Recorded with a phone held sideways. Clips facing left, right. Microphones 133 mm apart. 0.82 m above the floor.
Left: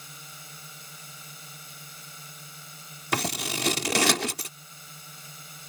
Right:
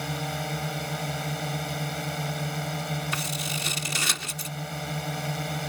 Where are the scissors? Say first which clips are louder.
Left 2 dB; 70° left (ahead or behind).